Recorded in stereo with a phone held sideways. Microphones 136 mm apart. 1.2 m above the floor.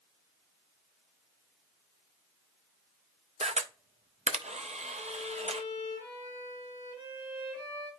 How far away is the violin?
About 3.5 m.